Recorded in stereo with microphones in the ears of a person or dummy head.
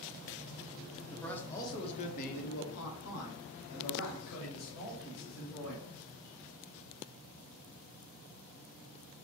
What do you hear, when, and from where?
1.1 s a man speaking: centre (ahead or behind), 0.9 m; by 5.9 s 80° left, 2.5 m